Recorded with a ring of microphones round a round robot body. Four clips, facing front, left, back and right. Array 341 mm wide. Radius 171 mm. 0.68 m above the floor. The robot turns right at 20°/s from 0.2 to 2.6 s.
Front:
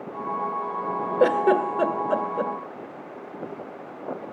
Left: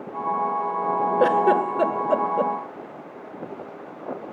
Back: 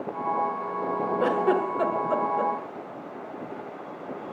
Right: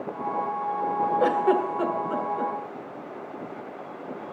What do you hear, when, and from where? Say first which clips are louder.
1.2 s a giggle: left 4 dB, front 5 dB; 40° left, 1.6 m; by 2.5 s 65° left, 1.6 m